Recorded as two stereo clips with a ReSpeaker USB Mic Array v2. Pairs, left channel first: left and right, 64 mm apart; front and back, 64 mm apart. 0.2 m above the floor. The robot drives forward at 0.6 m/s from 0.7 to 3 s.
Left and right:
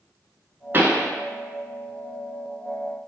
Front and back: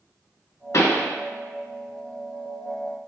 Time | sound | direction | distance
0.7 | a pop | 35° right | 0.7 m